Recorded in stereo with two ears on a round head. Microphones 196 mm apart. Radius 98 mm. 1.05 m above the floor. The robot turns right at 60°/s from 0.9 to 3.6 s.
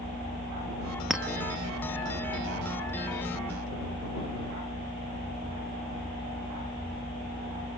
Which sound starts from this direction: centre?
A clink, at 1.1 s.